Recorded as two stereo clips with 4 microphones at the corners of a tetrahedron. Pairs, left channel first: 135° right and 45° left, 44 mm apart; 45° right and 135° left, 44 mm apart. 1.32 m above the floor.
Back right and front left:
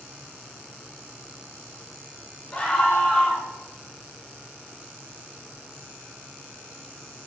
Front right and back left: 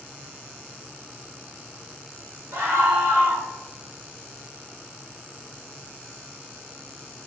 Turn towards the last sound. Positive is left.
turn(degrees=170)